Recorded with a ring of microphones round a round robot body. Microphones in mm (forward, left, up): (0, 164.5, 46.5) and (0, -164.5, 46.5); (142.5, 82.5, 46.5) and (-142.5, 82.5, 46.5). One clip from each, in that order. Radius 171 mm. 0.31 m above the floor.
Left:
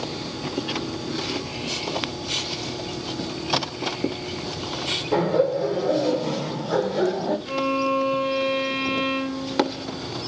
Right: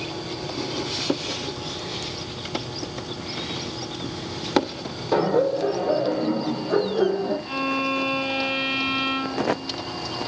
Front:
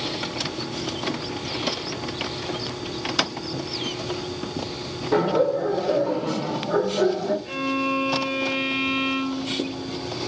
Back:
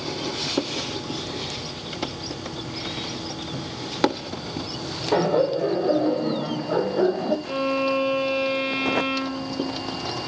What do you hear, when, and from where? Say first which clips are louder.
5.1 s laughter: right 2 dB, even; 150° right, 1.7 m; by 7.3 s 155° left, 2 m
7.5 s a violin: left 2 dB, back 2 dB; straight behind, 1.3 m